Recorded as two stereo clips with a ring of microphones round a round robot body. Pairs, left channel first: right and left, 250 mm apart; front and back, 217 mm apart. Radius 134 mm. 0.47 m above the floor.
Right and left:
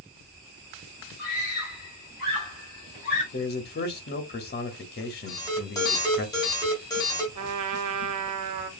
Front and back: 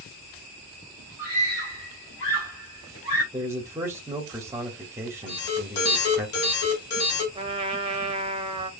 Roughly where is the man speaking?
Right.